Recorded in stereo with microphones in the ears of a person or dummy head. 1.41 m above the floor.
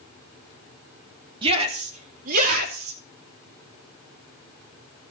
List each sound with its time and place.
1.4 s a shout: 30° right (ahead or behind), 2.5 m; by 3.0 s 60° right (ahead or behind), 3 m